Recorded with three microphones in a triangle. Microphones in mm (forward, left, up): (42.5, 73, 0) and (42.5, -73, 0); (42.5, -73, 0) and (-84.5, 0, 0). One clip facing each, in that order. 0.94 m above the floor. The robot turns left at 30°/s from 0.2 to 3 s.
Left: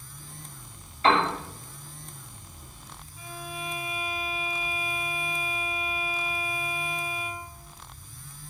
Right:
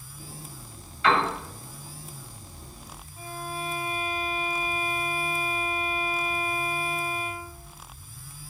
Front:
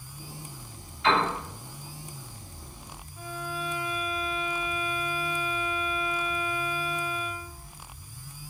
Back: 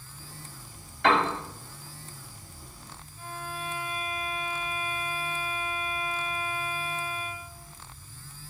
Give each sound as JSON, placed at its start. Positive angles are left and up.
{"t": 1.0, "sound": "a piano", "azimuth_deg": 135, "distance_m": 2.5}
{"t": 3.2, "sound": "a violin", "azimuth_deg": -45, "distance_m": 2.0}